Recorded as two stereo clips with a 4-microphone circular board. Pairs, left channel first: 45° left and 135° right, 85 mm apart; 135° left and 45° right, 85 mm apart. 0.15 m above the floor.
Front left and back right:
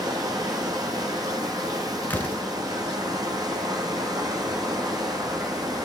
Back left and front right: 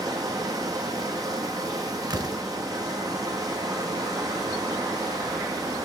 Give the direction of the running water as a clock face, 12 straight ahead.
3 o'clock.